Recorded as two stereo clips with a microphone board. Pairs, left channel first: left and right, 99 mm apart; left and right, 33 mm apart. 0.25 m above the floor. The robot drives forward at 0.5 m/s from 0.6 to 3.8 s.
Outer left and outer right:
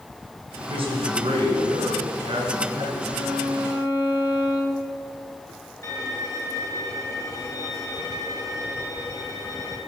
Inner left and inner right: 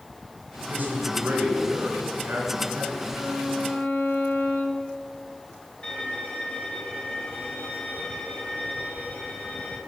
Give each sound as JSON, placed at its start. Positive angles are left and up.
{"t": 0.7, "sound": "a man speaking", "side_deg": -65, "distance_m": 2.5}
{"t": 3.1, "sound": "a violin", "side_deg": 55, "distance_m": 2.5}
{"t": 5.8, "sound": "a violin", "side_deg": 30, "distance_m": 1.6}